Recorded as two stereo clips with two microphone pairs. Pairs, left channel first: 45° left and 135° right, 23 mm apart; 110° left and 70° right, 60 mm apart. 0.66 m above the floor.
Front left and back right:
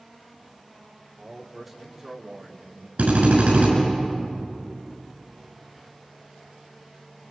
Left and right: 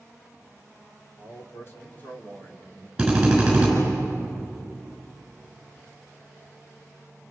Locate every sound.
1.2 s a man speaking: 130° left, 2.5 m; by 2.9 s 165° right, 2 m
3.0 s a drill: 150° right, 7 m